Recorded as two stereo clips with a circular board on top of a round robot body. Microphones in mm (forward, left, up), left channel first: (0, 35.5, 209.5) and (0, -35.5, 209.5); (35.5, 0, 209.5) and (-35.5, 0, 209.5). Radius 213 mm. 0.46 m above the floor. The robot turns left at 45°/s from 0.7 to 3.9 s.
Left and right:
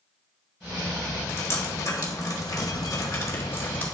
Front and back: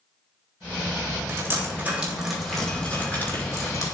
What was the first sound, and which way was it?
Dripping, 140° left.